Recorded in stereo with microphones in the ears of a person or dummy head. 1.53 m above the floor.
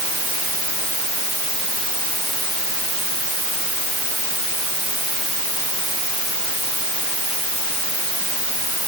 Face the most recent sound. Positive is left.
No sound to turn to.